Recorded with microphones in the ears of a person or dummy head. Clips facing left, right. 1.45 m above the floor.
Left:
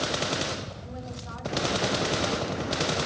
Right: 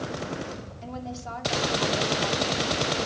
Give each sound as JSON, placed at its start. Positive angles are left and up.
{"t": 0.8, "sound": "a woman speaking", "side_deg": -70, "distance_m": 3.0}